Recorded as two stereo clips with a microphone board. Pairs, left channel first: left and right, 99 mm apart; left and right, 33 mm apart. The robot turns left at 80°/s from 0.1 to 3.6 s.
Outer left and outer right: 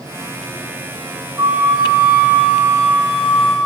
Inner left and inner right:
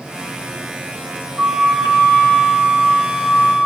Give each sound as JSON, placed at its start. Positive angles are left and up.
{"t": 1.4, "sound": "a flute", "azimuth_deg": -155, "distance_m": 7.5}